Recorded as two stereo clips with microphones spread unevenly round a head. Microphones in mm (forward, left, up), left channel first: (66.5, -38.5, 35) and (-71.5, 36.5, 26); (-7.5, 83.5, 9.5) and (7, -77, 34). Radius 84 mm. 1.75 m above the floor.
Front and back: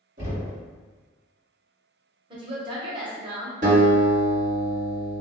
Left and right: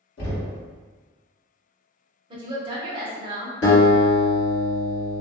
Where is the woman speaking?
145° right, 0.7 m.